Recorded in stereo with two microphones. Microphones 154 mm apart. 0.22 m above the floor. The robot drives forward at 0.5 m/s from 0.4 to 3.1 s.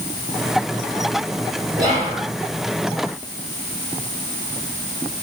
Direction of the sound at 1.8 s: 25° right (ahead or behind).